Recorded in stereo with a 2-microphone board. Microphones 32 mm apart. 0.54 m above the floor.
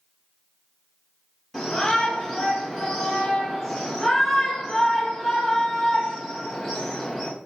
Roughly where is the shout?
Centre.